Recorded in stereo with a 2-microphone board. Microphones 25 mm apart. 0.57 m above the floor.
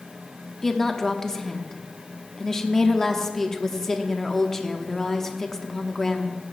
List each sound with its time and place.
0.6 s a woman speaking: 20° left (ahead or behind), 0.9 m